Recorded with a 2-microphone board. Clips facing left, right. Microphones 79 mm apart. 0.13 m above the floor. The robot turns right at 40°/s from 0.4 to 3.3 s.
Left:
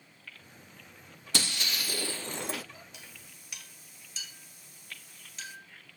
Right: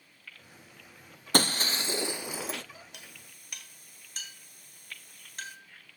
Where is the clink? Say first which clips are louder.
Even; 60° right (ahead or behind), 2.5 m; by 5.6 s 50° right (ahead or behind), 2.5 m.